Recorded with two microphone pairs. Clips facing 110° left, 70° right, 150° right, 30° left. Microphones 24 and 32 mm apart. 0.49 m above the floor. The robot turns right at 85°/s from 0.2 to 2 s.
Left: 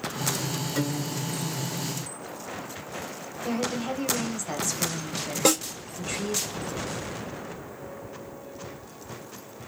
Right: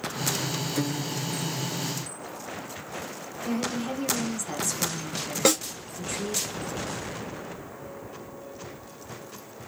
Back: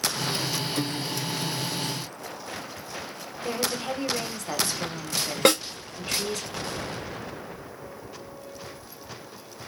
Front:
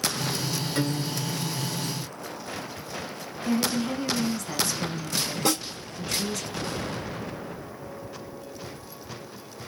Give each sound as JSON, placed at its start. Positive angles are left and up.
{"t": 0.8, "sound": "a guitar", "azimuth_deg": 80, "distance_m": 1.1}
{"t": 3.5, "sound": "a woman speaking", "azimuth_deg": 180, "distance_m": 1.0}
{"t": 5.5, "sound": "a snare drum", "azimuth_deg": -145, "distance_m": 1.4}